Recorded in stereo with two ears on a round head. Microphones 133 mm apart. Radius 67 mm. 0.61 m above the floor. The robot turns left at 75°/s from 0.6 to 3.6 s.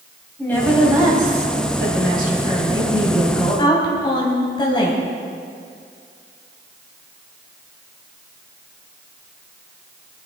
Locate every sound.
0.4 s a woman speaking: 10° left, 3.5 m; by 5.0 s 145° left, 3.5 m